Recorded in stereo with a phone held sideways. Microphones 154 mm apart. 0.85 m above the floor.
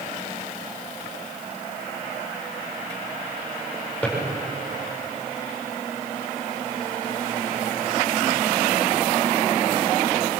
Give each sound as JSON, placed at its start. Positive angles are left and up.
{"t": 4.0, "sound": "a drawer", "side_deg": 10, "distance_m": 9.5}